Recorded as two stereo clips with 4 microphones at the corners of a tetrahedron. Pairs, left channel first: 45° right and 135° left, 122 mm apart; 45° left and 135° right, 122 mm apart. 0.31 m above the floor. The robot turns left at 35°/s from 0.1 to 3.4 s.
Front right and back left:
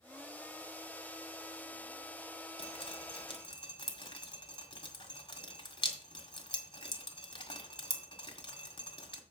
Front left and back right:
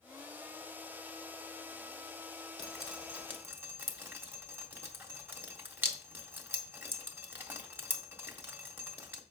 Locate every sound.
2.6 s dripping: 40° right, 1.8 m; by 9.2 s 65° right, 1.8 m